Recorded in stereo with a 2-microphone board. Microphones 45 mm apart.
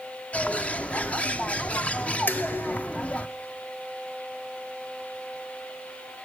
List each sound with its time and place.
0.3 s a bird: 25° left (ahead or behind), 0.7 m
2.3 s dishes clattering: 45° left (ahead or behind), 1.1 m